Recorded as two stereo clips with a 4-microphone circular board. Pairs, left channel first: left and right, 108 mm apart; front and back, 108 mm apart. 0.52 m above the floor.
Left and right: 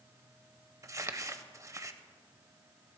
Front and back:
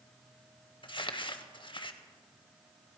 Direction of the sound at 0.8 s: 35° right.